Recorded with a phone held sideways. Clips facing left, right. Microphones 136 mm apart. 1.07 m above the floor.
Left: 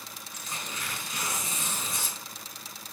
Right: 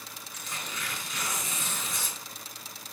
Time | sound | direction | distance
0.3 | tearing paper | 35° left (ahead or behind) | 2.5 m